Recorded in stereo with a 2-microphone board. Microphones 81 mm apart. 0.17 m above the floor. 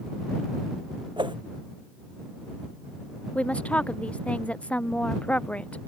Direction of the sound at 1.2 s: 75° right (ahead or behind).